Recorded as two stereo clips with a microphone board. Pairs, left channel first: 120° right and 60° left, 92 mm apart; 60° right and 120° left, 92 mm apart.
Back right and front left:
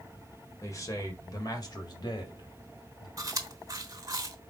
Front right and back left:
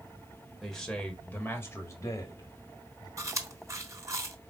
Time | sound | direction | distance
0.6 | a man speaking | 150° right | 1.3 m
3.2 | chewing | 85° left | 0.9 m